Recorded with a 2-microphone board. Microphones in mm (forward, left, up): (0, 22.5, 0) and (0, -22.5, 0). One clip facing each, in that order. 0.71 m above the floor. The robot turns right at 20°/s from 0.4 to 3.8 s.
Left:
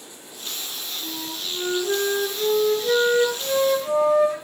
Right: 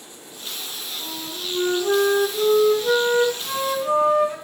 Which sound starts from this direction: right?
A flute, at 1.0 s.